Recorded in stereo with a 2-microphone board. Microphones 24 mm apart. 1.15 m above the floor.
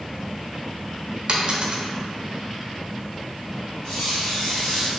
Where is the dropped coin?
40° right (ahead or behind), 0.6 m.